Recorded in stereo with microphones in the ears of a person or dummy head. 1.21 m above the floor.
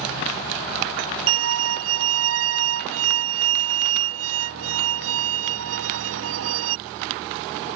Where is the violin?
75° right (ahead or behind).